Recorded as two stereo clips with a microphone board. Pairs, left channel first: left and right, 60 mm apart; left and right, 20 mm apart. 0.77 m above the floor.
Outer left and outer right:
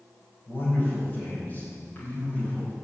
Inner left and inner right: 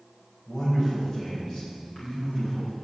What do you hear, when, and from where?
0.5 s a man speaking: 35° left (ahead or behind), 4.5 m; by 2.7 s 25° left (ahead or behind), 5.5 m